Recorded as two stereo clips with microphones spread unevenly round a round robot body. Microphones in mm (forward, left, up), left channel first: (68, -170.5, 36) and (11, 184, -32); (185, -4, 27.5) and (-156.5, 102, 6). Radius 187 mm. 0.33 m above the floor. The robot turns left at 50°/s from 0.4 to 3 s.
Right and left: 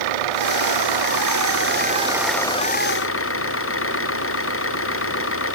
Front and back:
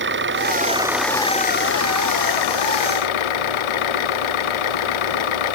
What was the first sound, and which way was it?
An engine running, 105° left.